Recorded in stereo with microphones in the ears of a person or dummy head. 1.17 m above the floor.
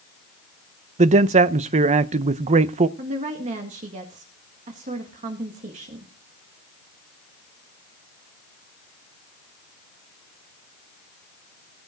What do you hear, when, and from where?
1.0 s a man speaking: 30° right (ahead or behind), 0.6 m
3.0 s a woman speaking: 30° right (ahead or behind), 1.9 m